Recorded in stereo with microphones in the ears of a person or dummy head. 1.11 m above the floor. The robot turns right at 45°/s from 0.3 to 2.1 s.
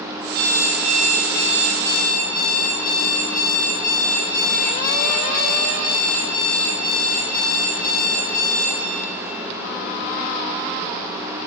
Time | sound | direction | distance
0.3 | an alarm clock | 20° right | 0.9 m